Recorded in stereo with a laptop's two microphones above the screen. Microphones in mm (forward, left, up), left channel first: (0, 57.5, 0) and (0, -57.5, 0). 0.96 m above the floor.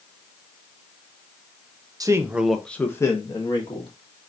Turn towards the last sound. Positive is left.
turn(degrees=45)  # may be behind; listen again after turning